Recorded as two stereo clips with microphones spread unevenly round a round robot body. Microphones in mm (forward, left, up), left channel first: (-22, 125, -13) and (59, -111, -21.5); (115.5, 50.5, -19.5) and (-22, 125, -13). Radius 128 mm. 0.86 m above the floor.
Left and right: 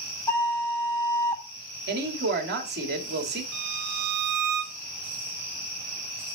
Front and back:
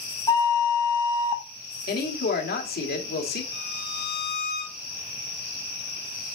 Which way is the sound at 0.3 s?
30° left.